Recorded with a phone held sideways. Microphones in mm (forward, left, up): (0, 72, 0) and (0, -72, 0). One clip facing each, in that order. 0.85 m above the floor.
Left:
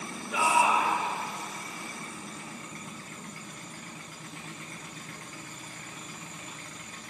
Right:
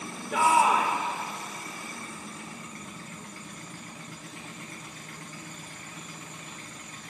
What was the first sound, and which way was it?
A shout, 60° right (ahead or behind).